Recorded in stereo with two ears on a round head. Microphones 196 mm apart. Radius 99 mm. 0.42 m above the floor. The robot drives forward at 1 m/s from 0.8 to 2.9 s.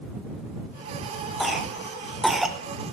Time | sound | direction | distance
1.4 | a cough | centre (ahead or behind) | 1.8 m